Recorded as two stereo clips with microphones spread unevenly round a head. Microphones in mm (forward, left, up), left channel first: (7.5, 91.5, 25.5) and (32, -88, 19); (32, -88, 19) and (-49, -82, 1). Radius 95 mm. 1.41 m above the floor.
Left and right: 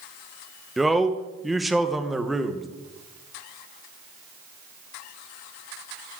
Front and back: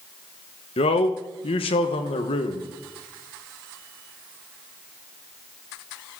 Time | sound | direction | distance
0.8 | a man speaking | 10° left | 1.1 m